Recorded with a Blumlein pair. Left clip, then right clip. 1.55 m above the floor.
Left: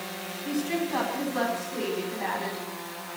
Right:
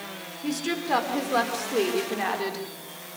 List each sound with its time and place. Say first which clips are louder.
0.4 s a woman speaking: right 1 dB; 45° right, 5 m; by 2.6 s 60° right, 4.5 m